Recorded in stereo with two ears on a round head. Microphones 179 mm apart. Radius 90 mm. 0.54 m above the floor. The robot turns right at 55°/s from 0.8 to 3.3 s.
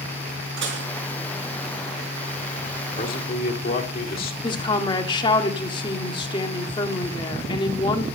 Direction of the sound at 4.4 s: 25° left (ahead or behind).